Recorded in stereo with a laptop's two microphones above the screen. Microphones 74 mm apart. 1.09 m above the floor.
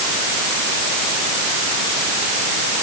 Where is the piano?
No piano in this recording.